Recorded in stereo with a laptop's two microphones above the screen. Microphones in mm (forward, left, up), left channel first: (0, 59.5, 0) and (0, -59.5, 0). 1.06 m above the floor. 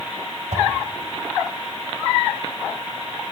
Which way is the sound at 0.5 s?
75° right (ahead or behind).